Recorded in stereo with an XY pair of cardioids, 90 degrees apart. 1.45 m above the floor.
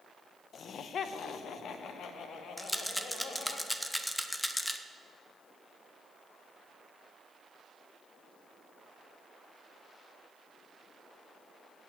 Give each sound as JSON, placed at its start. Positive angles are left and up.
{"t": 0.5, "sound": "laughter", "azimuth_deg": 65, "distance_m": 0.9}
{"t": 2.6, "sound": "a rattle", "azimuth_deg": 5, "distance_m": 1.1}